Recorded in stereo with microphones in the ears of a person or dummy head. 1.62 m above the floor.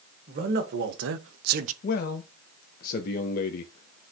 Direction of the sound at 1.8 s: 55° left (ahead or behind).